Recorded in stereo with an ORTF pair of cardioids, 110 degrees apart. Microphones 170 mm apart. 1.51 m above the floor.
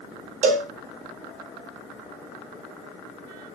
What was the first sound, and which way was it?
A cowbell, 50° right.